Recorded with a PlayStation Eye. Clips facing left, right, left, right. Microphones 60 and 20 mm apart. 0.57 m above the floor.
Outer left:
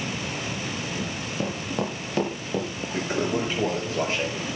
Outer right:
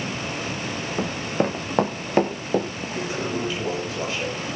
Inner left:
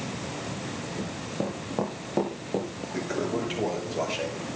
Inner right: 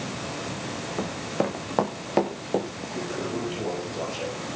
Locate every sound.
1.0 s running footsteps: 65° right (ahead or behind), 1.8 m; by 2.7 s 35° right (ahead or behind), 4 m
2.9 s a toilet flushing: 40° left (ahead or behind), 6.5 m